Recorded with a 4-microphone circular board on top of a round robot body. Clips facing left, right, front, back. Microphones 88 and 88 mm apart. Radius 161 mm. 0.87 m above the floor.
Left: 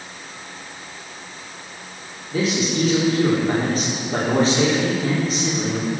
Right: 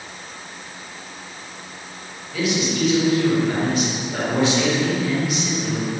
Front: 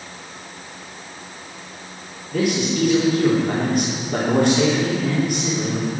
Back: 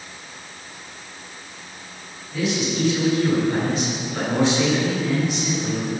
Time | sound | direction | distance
2.3 | a man speaking | 35° left | 3.5 m